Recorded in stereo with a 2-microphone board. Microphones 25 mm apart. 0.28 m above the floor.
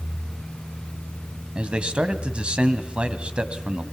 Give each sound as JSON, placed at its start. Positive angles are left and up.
{"t": 1.6, "sound": "a man speaking", "side_deg": -45, "distance_m": 1.8}